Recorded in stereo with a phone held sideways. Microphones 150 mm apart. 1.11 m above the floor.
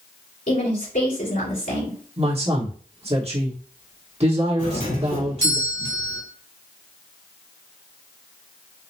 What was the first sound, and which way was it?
A woman speaking, 75° left (ahead or behind).